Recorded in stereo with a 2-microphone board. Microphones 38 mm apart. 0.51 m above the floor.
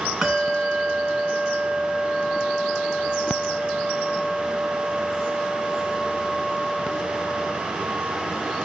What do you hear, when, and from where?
0.2 s a bell: 15° right (ahead or behind), 2.5 m